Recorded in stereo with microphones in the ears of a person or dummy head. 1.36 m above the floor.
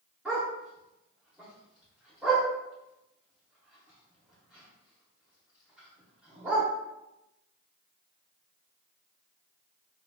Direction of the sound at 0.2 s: 5° right (ahead or behind).